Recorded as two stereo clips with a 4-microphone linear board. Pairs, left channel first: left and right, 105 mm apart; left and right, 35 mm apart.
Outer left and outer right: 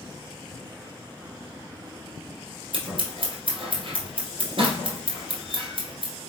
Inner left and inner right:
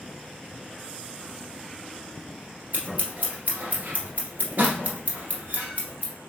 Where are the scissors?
55° right (ahead or behind), 1.7 m.